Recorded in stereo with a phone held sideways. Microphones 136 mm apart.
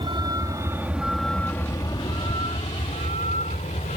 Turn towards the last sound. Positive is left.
turn(degrees=70)  # may be behind; listen again after turning